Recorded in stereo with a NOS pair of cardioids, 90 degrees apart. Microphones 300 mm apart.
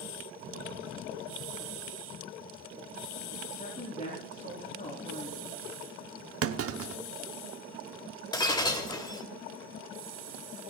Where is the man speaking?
30° left, 4 m.